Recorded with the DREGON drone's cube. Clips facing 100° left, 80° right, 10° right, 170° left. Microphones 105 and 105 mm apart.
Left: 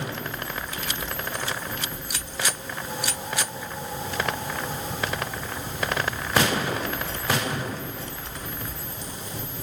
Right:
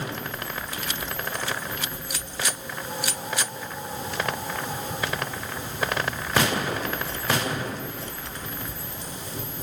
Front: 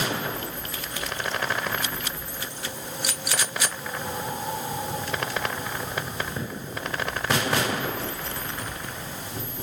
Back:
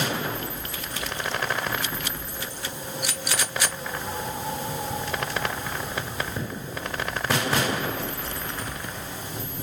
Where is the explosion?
I don't hear an explosion.